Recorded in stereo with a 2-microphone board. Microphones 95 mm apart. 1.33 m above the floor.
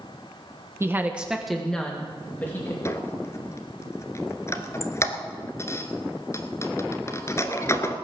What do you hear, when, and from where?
0.8 s a woman speaking: 30° right (ahead or behind), 1.2 m; by 2.8 s 20° left (ahead or behind), 2.5 m
2.9 s a squeak: 30° left (ahead or behind), 1.4 m